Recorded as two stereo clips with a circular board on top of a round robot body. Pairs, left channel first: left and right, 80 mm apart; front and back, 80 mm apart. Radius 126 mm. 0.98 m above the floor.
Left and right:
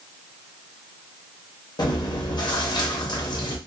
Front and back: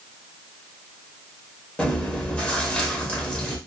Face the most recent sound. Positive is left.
turn(degrees=75)